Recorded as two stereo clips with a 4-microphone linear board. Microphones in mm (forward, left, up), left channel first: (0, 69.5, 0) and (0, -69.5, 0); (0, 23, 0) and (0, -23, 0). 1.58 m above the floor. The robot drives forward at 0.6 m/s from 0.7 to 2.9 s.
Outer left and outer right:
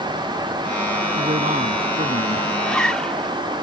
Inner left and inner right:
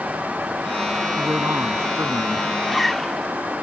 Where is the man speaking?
70° right (ahead or behind); by 2.5 s 65° right (ahead or behind).